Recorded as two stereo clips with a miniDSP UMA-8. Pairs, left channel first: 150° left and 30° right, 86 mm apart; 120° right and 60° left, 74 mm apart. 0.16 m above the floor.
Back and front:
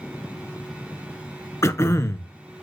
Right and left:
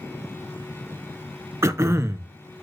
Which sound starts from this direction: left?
Throat clearing, at 1.6 s.